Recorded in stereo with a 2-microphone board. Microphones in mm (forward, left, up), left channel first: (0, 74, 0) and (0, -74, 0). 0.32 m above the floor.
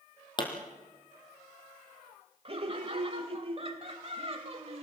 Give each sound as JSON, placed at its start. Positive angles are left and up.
{"t": 0.4, "sound": "a pop", "side_deg": 30, "distance_m": 3.5}
{"t": 2.5, "sound": "laughter", "side_deg": -40, "distance_m": 1.4}